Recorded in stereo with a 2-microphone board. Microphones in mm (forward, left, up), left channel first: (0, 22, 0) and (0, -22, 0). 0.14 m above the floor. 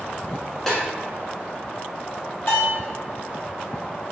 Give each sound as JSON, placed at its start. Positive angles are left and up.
{"t": 0.7, "sound": "a snare drum", "side_deg": 5, "distance_m": 0.8}
{"t": 2.5, "sound": "a bell", "side_deg": 60, "distance_m": 1.5}